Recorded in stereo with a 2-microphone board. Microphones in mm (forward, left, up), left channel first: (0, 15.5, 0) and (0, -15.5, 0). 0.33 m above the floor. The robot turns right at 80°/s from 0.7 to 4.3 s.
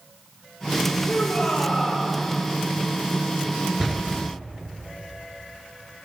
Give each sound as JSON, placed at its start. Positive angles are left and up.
{"t": 1.0, "sound": "a shout", "azimuth_deg": 105, "distance_m": 9.0}
{"t": 3.8, "sound": "a door slam", "side_deg": -10, "distance_m": 3.5}